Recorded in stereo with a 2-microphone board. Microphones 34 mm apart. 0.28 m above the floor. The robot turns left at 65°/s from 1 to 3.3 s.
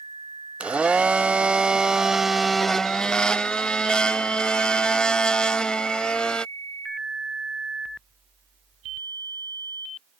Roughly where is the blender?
Right.